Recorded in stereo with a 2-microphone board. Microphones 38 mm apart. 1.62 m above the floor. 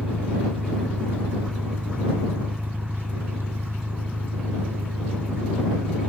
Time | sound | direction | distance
0.0 | an engine running | 60° right (ahead or behind) | ?